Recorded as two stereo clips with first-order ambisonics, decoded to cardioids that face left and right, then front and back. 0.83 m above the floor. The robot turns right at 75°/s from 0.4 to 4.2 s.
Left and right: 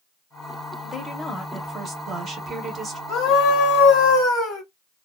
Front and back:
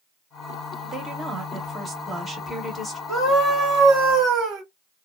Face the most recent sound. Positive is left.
turn(degrees=140)